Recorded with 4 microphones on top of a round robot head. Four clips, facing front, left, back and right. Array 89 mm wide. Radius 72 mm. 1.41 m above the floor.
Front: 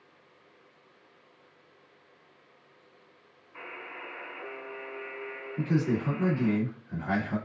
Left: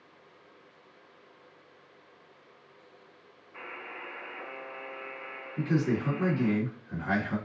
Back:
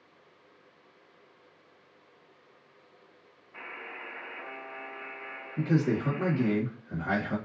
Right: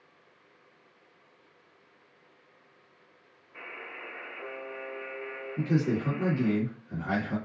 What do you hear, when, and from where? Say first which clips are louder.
3.5 s a buzzer: left 1 dB, even; 160° left, 1.7 m
5.6 s a man speaking: even, back 1 dB; 165° right, 1.3 m